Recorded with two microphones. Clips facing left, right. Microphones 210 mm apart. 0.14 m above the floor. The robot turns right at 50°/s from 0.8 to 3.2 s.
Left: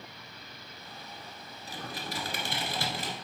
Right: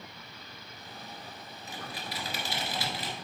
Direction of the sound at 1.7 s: 45° left.